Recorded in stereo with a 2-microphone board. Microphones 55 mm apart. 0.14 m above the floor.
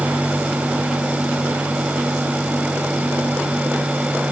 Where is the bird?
I don't hear a bird.